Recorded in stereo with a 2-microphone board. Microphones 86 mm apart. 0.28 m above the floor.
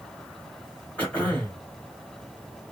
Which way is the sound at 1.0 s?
15° left (ahead or behind).